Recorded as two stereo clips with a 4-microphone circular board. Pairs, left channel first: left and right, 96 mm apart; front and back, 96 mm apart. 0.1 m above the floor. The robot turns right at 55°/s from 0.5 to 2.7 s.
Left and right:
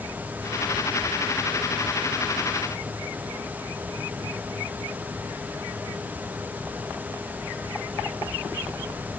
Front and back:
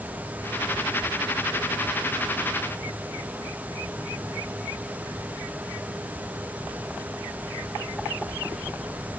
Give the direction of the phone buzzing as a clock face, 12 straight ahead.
No phone buzzing in this recording.